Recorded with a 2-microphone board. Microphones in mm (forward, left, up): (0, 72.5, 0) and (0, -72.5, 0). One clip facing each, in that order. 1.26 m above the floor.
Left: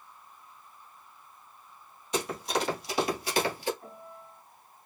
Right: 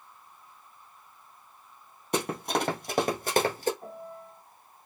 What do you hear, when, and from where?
2.1 s running footsteps: 60° right (ahead or behind), 2.5 m; by 3.7 s 45° right (ahead or behind), 1.7 m
3.8 s a piano: 40° right (ahead or behind), 2.5 m